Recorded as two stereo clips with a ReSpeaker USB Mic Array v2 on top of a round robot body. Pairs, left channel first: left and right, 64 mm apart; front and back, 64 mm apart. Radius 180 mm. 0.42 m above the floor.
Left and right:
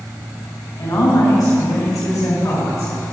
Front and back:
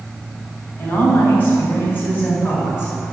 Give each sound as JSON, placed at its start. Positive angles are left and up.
{"t": 0.8, "sound": "a woman speaking", "azimuth_deg": 65, "distance_m": 3.5}